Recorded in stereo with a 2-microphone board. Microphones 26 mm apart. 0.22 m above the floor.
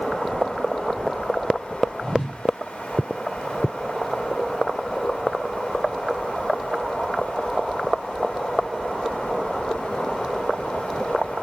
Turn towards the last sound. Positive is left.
turn(degrees=30)  # may be behind; listen again after turning